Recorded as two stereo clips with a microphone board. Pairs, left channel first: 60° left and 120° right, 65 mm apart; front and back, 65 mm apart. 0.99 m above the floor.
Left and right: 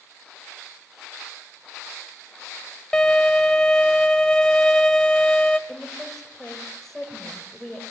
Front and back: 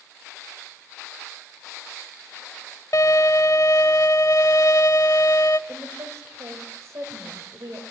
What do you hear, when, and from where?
2.9 s a violin: 15° right, 1.4 m
5.7 s a woman speaking: 145° left, 4 m